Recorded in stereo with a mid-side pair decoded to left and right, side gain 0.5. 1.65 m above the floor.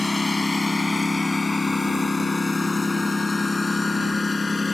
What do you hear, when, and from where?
0.0 s a lawn mower: 15° left; by 4.7 s 20° left